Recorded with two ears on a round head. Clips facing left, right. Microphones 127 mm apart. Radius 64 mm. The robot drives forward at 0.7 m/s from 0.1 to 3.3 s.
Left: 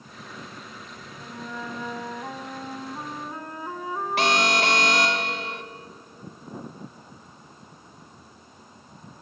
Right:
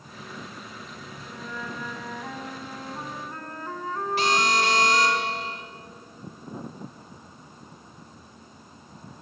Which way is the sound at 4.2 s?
50° left (ahead or behind).